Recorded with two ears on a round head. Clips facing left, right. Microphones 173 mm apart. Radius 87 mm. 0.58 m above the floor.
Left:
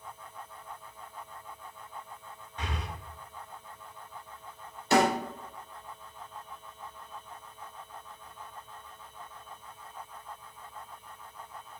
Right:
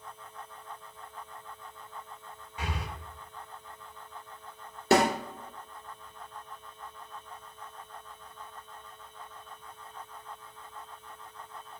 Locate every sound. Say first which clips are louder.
2.6 s breathing: right 1 dB; 10° right (ahead or behind), 1.5 m
4.9 s a snare drum: right 1 dB; 55° right (ahead or behind), 2.5 m